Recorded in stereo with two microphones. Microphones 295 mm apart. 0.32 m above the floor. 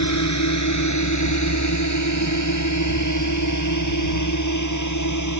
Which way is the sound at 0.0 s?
70° left (ahead or behind).